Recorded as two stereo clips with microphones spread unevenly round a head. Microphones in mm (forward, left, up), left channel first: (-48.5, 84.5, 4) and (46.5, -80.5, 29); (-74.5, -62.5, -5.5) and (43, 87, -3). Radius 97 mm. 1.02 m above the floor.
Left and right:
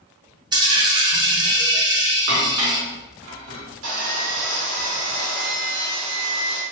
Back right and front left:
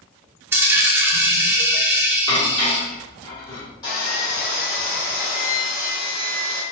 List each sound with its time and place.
0.5 s a dropped coin: 20° right, 0.6 m
2.3 s dishes clattering: 60° right, 1.4 m
3.8 s sawing: 55° right, 1.8 m